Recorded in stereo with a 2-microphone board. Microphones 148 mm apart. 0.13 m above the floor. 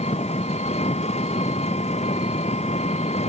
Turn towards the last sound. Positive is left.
turn(degrees=45)  # may be behind; listen again after turning